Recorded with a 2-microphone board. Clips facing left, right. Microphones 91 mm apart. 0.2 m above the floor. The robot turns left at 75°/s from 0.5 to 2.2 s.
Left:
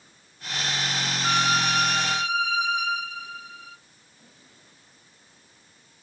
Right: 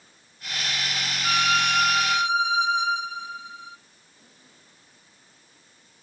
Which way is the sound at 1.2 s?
45° left.